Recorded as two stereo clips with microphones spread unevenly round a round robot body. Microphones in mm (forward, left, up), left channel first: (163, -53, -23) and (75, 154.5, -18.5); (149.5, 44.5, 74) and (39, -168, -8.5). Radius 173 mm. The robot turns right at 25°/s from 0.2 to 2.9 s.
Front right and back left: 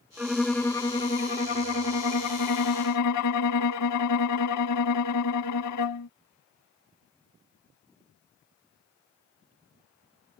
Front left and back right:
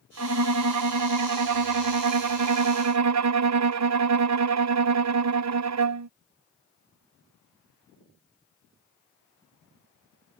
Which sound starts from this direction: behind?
A violin, at 0.2 s.